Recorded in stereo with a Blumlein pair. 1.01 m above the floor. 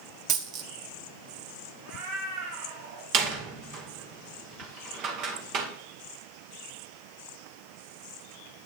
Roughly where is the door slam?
Ahead right.